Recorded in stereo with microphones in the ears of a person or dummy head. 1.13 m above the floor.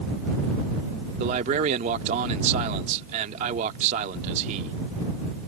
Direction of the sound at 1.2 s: 35° right (ahead or behind).